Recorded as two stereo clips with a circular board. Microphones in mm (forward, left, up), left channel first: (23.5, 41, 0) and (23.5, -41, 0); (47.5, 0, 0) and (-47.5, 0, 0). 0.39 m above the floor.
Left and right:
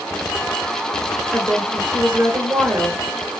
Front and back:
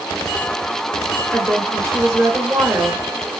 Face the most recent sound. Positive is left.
turn(degrees=-140)